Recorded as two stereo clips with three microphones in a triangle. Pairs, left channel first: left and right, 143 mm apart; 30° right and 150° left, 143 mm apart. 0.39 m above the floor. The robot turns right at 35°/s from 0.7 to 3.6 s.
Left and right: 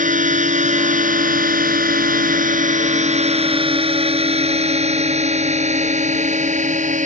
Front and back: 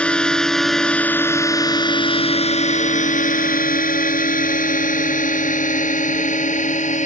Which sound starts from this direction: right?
A drone, at 0.0 s.